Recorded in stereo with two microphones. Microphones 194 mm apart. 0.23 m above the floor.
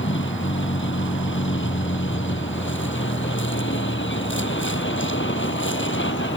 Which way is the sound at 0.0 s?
75° left (ahead or behind).